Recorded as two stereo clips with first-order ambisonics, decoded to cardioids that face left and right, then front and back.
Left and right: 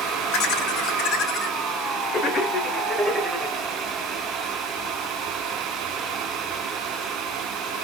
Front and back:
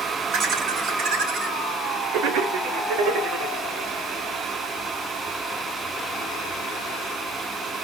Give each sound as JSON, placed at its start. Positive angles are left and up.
{"t": 0.3, "sound": "laughter", "azimuth_deg": 125, "distance_m": 2.0}